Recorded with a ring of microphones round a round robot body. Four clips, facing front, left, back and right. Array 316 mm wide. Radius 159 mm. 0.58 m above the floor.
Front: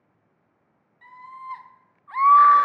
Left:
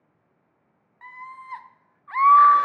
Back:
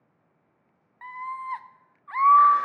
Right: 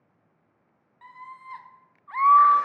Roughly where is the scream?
Behind.